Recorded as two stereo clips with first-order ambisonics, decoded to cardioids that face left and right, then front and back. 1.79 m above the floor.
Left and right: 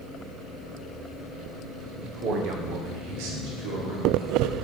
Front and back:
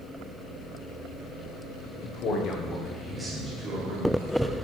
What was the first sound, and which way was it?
A man speaking, 30° right.